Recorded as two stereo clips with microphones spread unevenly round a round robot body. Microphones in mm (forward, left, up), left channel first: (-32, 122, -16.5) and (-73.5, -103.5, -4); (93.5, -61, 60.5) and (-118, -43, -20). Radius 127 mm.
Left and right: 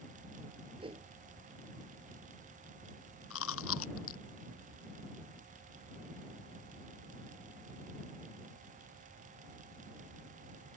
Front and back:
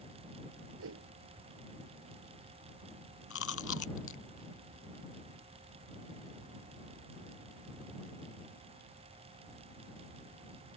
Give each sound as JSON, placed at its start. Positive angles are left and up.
{"t": 0.8, "sound": "a whoosh", "azimuth_deg": -170}
{"t": 3.3, "sound": "chewing", "azimuth_deg": 35}